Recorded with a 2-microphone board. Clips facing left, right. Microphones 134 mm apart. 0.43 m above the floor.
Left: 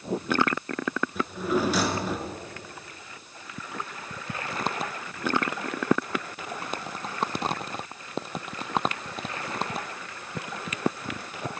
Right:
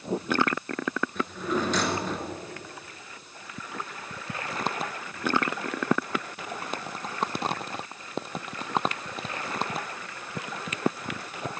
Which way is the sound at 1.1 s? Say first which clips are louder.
Left 4 dB; 10° left (ahead or behind).